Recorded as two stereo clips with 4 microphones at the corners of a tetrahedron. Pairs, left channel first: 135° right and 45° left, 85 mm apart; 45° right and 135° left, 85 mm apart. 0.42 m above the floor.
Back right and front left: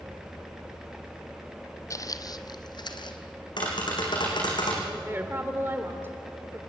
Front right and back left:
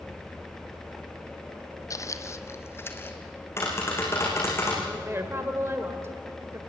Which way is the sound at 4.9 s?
100° left.